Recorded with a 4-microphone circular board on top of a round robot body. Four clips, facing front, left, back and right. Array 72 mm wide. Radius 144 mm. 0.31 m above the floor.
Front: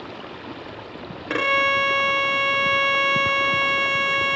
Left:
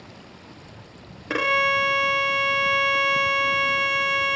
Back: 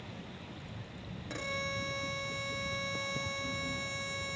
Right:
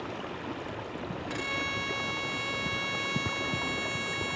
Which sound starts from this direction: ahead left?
A violin, at 1.3 s.